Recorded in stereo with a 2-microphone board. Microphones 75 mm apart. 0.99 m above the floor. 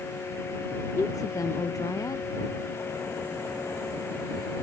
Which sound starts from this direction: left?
A woman speaking, at 1.0 s.